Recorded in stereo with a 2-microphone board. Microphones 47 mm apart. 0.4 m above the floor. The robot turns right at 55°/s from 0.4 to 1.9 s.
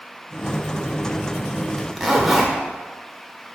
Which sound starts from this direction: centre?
A zipper, at 1.8 s.